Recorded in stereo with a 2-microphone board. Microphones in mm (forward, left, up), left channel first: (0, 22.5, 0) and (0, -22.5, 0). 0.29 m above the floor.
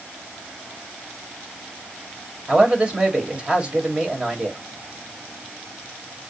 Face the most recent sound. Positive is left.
turn(degrees=-25)  # may be behind; listen again after turning